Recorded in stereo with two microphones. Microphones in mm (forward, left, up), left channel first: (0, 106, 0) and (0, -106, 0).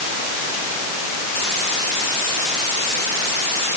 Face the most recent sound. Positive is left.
No sound to turn to.